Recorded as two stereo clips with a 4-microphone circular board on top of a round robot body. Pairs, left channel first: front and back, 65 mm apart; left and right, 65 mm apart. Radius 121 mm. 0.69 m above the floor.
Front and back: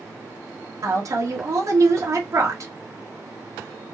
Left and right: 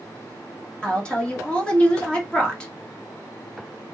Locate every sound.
0.8 s a woman speaking: 165° left, 1.2 m